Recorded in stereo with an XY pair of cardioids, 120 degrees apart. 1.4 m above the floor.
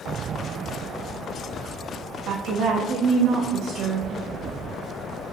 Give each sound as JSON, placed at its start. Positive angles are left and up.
{"t": 2.3, "sound": "a woman speaking", "azimuth_deg": -70, "distance_m": 0.6}